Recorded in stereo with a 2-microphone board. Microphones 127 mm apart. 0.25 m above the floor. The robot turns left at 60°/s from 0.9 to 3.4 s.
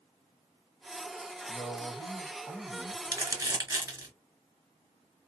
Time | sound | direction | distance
1.5 | a man speaking | 20° left (ahead or behind) | 1.0 m
3.0 | crumpling | 35° right (ahead or behind) | 1.9 m